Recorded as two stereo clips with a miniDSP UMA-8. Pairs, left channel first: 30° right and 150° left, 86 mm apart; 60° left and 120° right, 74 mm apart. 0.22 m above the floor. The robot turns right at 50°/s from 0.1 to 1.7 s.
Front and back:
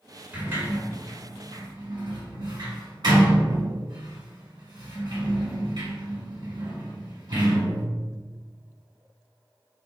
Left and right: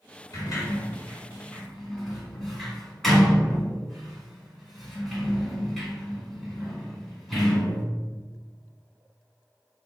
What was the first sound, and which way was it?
A sliding door, 75° left.